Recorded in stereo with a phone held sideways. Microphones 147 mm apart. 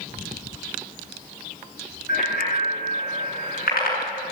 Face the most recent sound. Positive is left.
turn(degrees=90)